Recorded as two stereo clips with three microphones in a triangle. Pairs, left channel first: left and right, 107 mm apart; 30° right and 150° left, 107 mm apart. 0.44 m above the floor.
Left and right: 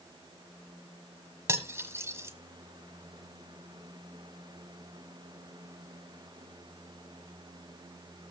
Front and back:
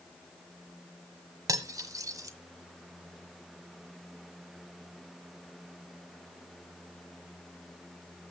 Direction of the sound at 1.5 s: 155° right.